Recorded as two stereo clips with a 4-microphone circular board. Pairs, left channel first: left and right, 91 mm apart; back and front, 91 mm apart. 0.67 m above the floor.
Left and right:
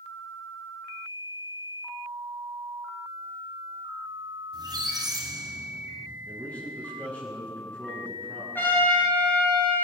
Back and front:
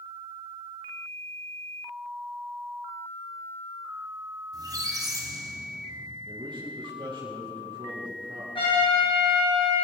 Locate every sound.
4.5 s a squeak: 45° right, 2.5 m
6.2 s a man speaking: 20° left, 5 m
8.6 s a trumpet: 160° left, 6.5 m